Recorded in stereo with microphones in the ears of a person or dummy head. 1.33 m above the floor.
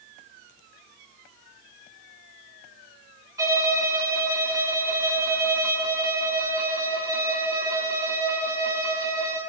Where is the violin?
15° right (ahead or behind), 2.5 m.